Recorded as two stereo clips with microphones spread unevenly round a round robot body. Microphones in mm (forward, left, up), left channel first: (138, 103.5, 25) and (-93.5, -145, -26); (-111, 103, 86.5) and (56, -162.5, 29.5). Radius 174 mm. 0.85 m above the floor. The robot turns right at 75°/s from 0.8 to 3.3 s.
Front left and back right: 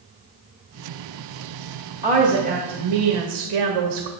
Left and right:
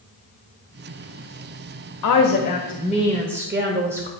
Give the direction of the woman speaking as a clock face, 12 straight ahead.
7 o'clock.